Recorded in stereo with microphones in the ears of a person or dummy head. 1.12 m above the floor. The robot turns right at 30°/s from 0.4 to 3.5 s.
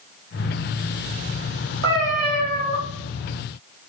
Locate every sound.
1.8 s a cat meowing: 65° right (ahead or behind), 1.4 m; by 2.8 s 35° right (ahead or behind), 1.4 m